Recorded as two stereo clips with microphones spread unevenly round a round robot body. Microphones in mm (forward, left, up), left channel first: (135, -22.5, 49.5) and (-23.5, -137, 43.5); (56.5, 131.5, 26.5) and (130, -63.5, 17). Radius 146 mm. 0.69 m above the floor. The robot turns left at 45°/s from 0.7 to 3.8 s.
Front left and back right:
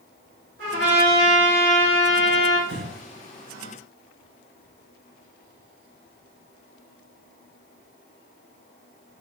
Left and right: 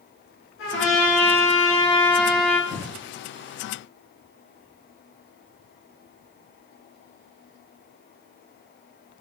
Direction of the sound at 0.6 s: 160° left.